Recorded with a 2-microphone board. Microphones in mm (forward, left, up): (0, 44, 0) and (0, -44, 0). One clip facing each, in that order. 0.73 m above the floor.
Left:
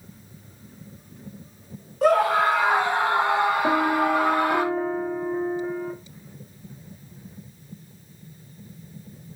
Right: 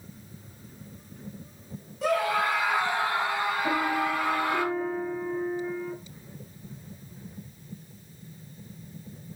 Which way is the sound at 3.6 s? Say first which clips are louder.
Left 6 dB; 50° left (ahead or behind).